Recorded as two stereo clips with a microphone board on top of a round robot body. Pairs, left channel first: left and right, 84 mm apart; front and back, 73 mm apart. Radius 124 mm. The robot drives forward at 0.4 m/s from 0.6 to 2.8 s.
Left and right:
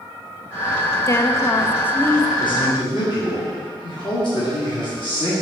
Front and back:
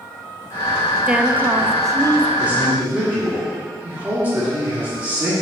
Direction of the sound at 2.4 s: 110° left.